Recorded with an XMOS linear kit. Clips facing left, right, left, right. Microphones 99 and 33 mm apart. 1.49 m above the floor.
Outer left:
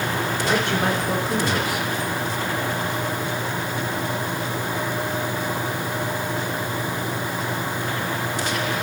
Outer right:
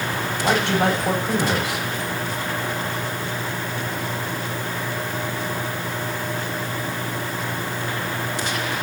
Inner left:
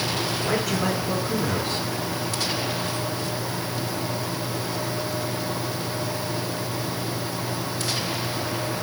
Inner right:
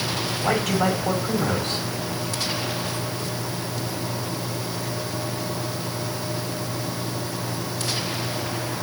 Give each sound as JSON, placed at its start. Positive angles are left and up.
{"t": 0.4, "sound": "a man speaking", "side_deg": -85, "distance_m": 5.5}